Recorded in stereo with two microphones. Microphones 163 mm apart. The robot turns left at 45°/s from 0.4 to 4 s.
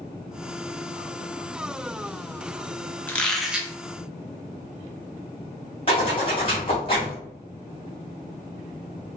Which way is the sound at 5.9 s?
35° left (ahead or behind).